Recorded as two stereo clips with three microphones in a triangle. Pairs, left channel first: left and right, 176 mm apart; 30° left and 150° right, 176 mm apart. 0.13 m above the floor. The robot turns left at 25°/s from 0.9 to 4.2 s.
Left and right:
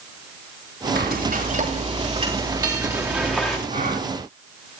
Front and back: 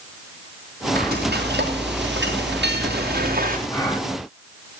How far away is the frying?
About 3 m.